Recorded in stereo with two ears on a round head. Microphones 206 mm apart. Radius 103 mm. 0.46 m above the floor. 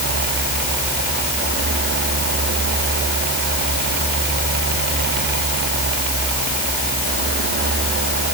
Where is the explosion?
No explosion in this recording.